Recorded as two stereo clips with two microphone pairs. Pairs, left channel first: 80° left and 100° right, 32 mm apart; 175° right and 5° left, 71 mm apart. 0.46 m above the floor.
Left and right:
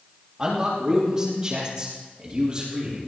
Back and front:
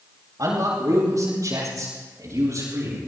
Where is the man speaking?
30° right, 9 m; by 3.0 s 35° right, 11 m.